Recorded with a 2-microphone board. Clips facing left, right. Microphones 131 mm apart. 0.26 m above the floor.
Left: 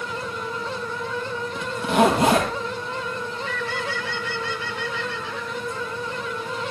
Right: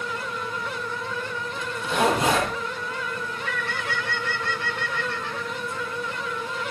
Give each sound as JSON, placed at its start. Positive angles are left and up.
{"t": 1.6, "sound": "a zipper", "side_deg": 65, "distance_m": 4.5}
{"t": 3.2, "sound": "a bird", "side_deg": -55, "distance_m": 2.5}